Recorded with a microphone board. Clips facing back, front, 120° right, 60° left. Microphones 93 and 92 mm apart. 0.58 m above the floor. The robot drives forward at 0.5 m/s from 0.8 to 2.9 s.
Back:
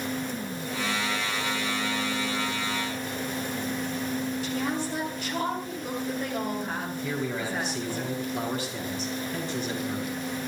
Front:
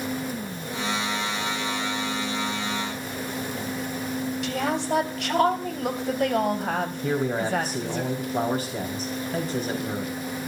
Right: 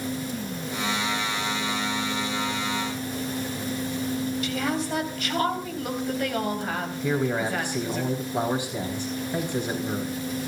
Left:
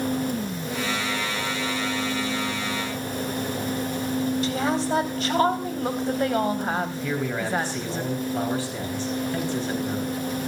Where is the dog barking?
No dog barking in this recording.